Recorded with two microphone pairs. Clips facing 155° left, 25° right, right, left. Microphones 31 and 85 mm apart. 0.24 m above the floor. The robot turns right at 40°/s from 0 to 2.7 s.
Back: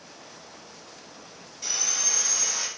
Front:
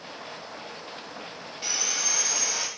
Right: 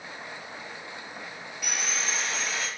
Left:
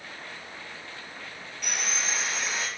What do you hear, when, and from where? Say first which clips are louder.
1.6 s sawing: front 1 dB, even; 10° right, 0.8 m; by 2.7 s 35° left, 0.8 m